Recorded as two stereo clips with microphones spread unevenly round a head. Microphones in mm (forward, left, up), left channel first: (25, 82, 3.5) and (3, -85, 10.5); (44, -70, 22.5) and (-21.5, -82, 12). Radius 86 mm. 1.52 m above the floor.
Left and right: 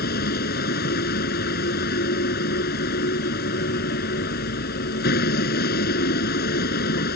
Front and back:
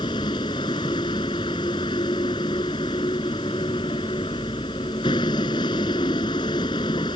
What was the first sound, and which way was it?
A vehicle, 55° left.